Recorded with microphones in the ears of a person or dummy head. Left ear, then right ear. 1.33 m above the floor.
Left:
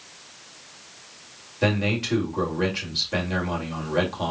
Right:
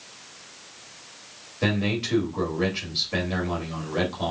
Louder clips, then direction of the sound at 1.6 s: Left 2 dB; 10° left (ahead or behind).